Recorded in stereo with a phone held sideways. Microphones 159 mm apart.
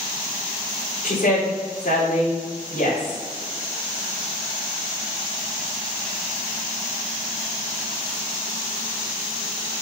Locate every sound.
1.0 s a woman speaking: 70° left (ahead or behind), 4 m